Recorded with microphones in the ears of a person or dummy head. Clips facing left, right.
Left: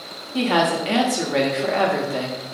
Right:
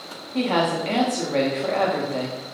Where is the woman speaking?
10° left (ahead or behind), 0.7 m.